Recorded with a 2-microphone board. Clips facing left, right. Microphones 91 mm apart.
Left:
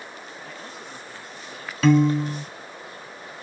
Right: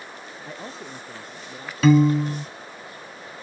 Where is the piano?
Centre (ahead or behind).